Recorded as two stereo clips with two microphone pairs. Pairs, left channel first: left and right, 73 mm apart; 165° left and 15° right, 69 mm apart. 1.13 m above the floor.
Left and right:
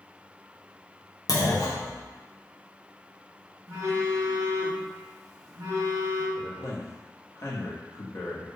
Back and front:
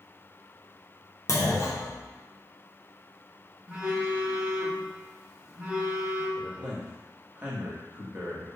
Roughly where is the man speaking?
Ahead left.